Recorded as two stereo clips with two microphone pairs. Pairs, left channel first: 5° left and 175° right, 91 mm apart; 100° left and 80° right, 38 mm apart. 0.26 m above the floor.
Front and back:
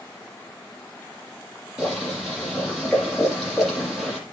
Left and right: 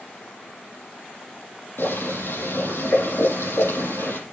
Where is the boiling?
95° left, 6.5 m.